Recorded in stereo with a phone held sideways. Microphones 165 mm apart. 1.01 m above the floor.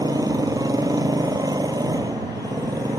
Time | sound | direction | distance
0.0 | a motorcycle | 20° right (ahead or behind) | ?